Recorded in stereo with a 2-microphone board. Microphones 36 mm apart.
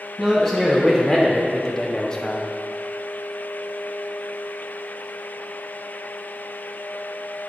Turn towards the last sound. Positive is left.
turn(degrees=20)  # may be behind; listen again after turning